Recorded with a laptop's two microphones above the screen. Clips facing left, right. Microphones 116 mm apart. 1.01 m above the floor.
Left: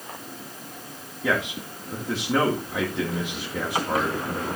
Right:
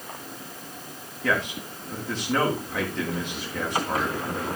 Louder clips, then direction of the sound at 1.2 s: Left 1 dB; 10° left (ahead or behind).